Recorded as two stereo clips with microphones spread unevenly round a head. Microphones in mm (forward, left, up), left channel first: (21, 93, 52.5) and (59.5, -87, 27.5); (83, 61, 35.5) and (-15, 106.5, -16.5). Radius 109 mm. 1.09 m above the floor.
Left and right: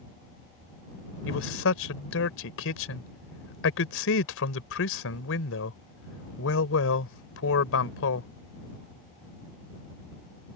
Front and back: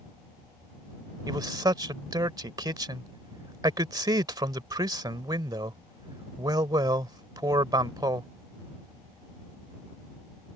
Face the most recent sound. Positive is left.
turn(degrees=100)